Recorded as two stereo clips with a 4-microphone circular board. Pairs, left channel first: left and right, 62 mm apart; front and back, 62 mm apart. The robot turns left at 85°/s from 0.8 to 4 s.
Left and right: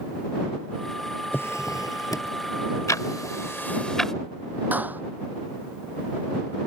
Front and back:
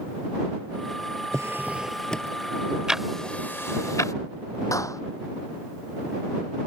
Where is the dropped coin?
I don't hear a dropped coin.